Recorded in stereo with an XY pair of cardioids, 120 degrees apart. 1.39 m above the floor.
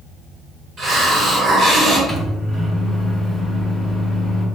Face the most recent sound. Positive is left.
turn(degrees=5)